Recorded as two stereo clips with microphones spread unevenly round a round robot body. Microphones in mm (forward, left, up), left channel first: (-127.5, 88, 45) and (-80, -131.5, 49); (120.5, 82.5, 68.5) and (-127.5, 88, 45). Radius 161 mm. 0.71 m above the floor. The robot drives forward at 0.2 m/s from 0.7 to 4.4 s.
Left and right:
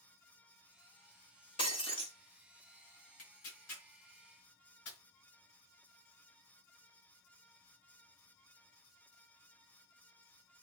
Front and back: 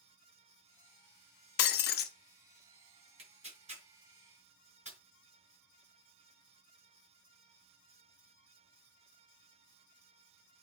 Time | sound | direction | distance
1.6 | breaking glass | 30° left | 1.0 m
3.2 | tearing paper | 115° left | 5 m